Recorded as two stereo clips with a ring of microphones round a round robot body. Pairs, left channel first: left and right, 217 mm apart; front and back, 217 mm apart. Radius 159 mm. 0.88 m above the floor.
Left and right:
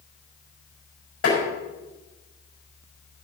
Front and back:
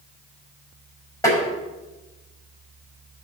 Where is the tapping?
75° left, 6 m.